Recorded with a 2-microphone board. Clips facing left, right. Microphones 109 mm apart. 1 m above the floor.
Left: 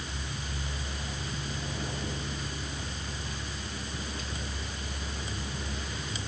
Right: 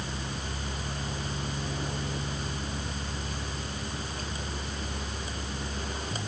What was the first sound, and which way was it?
Only background noise.